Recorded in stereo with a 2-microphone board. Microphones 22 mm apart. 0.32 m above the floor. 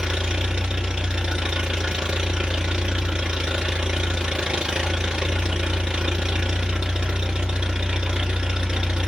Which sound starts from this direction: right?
An engine running, at 0.0 s.